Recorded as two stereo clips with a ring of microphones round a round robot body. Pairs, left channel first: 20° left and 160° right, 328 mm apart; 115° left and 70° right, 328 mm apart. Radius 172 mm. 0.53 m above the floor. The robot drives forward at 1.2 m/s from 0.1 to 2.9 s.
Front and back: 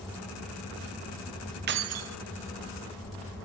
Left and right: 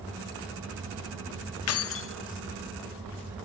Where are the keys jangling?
150° left, 0.6 m; by 2.2 s 165° left, 1.1 m.